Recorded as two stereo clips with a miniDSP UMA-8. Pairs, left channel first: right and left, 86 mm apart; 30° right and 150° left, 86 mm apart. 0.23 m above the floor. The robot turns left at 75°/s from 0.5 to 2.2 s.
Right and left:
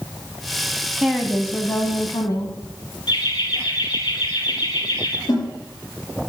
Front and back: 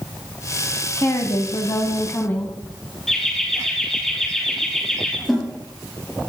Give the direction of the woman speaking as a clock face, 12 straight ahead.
12 o'clock.